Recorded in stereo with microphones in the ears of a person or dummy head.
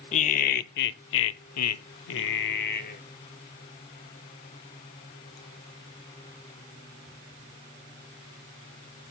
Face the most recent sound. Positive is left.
turn(degrees=45)  # may be behind; listen again after turning